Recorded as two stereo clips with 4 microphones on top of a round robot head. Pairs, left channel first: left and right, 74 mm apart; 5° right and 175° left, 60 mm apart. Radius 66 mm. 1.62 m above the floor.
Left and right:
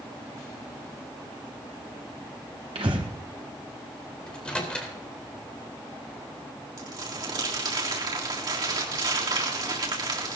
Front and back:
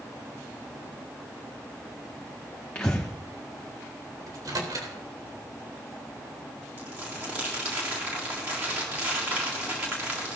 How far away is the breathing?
About 1.4 m.